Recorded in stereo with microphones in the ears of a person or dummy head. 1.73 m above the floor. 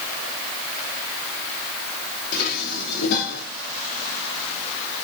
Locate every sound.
2.3 s dishes clattering: 50° left (ahead or behind), 3 m